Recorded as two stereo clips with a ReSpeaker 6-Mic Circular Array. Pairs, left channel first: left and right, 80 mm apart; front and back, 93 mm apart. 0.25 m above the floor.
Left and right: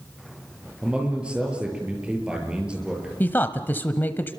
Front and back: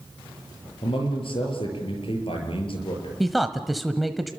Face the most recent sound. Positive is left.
turn(degrees=90)